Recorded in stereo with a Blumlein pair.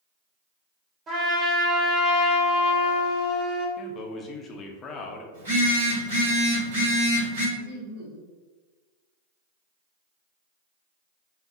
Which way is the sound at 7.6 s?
60° right.